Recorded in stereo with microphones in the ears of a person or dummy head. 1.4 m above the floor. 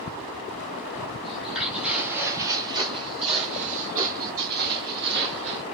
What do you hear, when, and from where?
1.2 s footsteps: 5° left (ahead or behind), 1.6 m; by 5.6 s 55° right (ahead or behind), 2.5 m